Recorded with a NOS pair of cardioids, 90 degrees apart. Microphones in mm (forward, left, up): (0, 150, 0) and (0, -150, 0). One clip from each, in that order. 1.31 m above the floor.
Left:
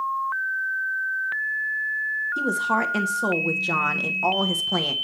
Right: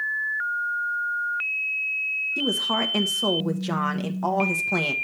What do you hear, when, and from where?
2.4 s a woman speaking: straight ahead, 1.2 m